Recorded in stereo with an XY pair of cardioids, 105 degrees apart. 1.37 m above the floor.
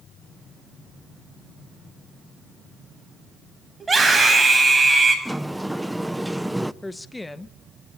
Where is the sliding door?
5° right, 0.6 m.